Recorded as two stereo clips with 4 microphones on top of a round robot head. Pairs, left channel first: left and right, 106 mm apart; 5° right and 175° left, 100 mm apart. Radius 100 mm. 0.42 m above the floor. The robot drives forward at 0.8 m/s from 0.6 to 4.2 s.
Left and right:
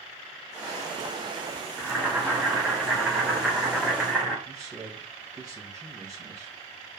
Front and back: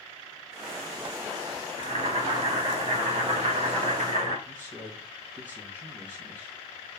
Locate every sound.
1.8 s boiling: 165° right, 2.5 m; by 4.3 s 175° right, 4.5 m
4.5 s a man speaking: 150° right, 2 m